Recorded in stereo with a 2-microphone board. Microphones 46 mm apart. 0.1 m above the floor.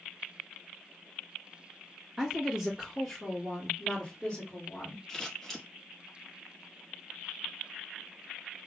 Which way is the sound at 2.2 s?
20° right (ahead or behind).